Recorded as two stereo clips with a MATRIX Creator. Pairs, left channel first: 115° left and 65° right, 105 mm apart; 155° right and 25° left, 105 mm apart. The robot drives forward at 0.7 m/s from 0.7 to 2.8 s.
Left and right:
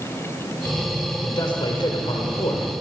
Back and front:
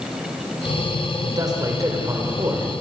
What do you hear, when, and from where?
1.2 s a man speaking: 70° left, 6 m; by 2.7 s 80° left, 6 m